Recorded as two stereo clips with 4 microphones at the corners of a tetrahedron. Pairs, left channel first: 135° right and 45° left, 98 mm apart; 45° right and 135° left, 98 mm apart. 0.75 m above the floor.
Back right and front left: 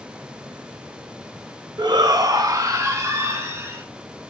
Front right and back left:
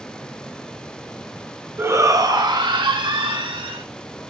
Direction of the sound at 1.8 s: 75° left.